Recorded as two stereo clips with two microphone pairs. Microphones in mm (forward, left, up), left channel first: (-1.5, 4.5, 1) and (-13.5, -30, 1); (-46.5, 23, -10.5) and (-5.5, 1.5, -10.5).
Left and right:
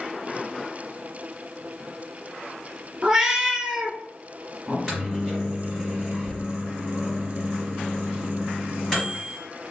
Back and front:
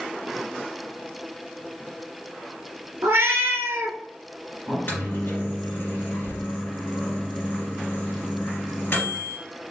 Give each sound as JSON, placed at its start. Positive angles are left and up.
{"t": 3.0, "sound": "a cat meowing", "azimuth_deg": -40, "distance_m": 0.5}
{"t": 4.7, "sound": "a microwave", "azimuth_deg": 155, "distance_m": 2.0}